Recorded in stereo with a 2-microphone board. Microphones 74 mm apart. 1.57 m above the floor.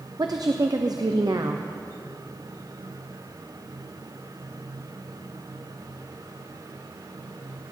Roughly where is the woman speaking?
Right.